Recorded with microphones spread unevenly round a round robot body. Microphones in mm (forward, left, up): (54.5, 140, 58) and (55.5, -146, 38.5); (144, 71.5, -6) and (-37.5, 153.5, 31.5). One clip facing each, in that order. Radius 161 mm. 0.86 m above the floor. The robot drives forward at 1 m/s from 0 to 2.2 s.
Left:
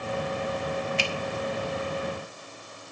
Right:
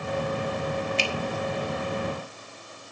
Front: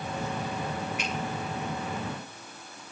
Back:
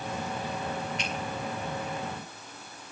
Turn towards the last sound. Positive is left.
turn(degrees=-140)